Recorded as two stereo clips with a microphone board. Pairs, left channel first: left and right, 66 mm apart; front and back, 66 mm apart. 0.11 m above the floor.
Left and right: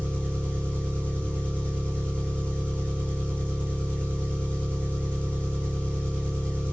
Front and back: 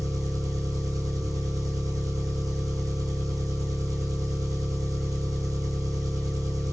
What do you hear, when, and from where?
0.0 s an engine running: 160° left, 1.5 m